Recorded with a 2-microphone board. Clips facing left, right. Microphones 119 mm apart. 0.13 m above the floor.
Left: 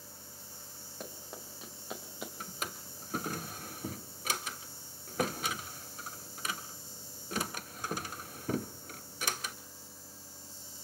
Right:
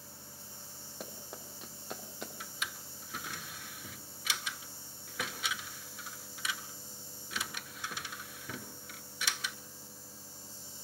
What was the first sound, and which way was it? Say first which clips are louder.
Running footsteps: left 1 dB; 5° right (ahead or behind).